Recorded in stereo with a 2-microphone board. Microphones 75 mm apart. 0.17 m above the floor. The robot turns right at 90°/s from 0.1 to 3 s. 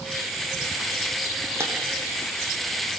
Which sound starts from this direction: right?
Breaking glass, at 1.6 s.